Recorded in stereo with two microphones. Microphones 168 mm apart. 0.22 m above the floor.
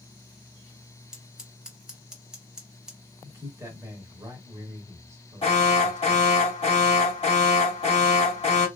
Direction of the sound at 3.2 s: 15° right (ahead or behind).